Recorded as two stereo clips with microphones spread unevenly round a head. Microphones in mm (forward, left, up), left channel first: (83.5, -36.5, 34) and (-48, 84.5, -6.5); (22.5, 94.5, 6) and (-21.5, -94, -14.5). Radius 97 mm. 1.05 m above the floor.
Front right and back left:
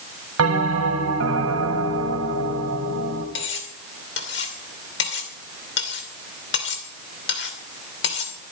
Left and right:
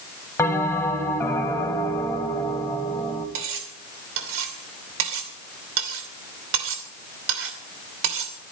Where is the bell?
155° left, 2.5 m.